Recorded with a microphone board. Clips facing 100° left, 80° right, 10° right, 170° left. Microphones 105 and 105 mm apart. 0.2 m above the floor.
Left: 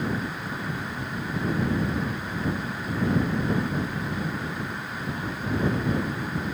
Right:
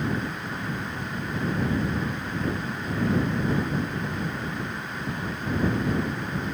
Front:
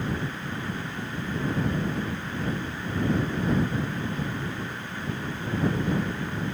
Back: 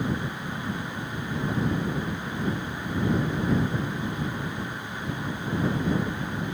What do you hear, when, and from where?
Only background noise.